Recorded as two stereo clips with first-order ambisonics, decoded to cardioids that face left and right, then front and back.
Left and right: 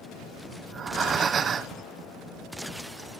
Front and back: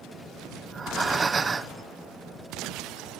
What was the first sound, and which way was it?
Breathing, 130° right.